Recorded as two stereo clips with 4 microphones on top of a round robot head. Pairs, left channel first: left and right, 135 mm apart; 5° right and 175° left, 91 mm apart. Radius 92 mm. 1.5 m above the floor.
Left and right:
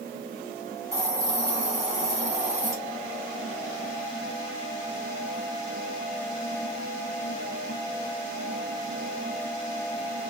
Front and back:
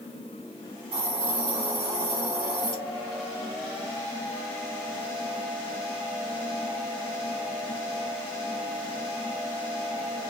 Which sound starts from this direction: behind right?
A hiss, at 0.9 s.